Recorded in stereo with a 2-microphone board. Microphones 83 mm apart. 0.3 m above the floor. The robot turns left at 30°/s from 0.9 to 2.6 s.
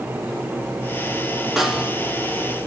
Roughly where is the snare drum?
Centre.